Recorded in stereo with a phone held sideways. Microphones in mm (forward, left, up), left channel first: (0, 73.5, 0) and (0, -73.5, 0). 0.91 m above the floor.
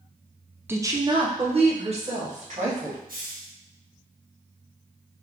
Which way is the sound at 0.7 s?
15° right (ahead or behind).